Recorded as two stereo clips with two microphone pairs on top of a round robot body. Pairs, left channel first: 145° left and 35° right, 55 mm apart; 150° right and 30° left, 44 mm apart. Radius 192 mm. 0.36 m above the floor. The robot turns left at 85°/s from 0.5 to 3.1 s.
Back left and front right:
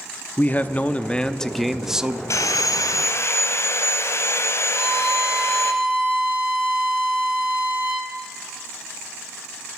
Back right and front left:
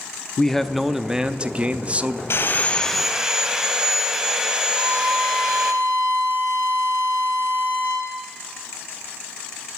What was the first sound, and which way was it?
A man speaking, 145° left.